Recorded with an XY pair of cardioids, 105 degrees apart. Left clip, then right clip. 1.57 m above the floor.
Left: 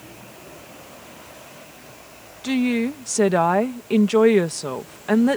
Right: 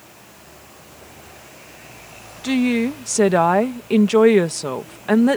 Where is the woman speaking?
20° right.